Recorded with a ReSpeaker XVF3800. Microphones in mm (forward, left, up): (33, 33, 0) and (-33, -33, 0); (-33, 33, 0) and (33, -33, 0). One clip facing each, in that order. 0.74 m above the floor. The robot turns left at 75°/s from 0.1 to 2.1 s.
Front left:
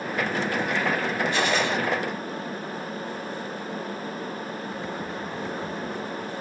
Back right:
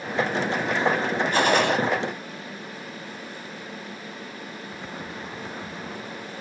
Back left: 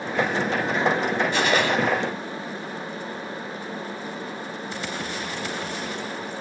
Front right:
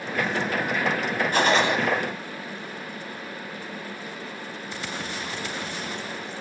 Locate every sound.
1.3 s a gunshot: 90° right, 1.6 m; by 1.8 s 120° right, 1.6 m